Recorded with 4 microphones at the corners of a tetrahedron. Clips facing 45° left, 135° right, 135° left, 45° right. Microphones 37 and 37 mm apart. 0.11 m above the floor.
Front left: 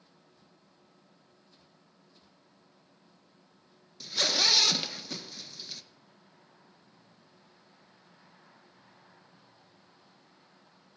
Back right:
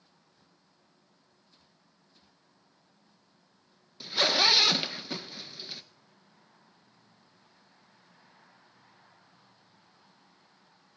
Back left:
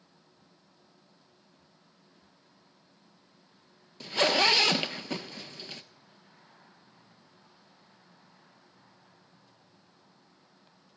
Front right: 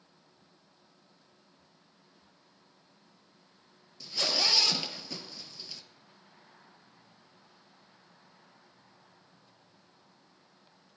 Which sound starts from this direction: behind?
A zipper, at 4.0 s.